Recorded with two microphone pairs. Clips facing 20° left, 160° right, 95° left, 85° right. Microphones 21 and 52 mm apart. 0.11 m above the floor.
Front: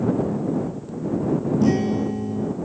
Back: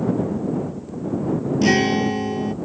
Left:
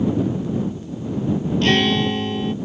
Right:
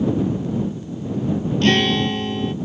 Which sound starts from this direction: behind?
A guitar, at 1.6 s.